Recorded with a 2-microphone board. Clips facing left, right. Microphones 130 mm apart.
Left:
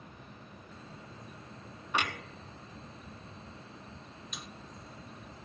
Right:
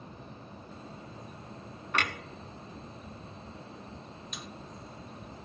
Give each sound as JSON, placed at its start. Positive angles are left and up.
{"t": 1.9, "sound": "a clunk", "side_deg": 10, "distance_m": 1.2}
{"t": 4.3, "sound": "a snare drum", "side_deg": 0, "distance_m": 0.9}